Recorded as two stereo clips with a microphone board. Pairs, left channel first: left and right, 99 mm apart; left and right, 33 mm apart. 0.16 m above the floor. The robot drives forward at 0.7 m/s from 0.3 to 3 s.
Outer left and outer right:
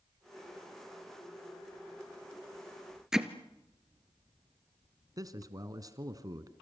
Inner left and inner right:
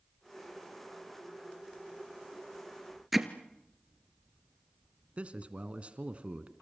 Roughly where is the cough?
I don't hear a cough.